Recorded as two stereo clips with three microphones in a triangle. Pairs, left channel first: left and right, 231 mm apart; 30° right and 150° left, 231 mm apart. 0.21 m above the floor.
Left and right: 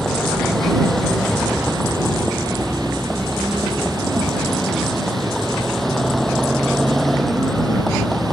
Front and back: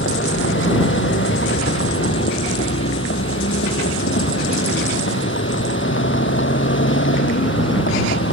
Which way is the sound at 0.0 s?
Straight ahead.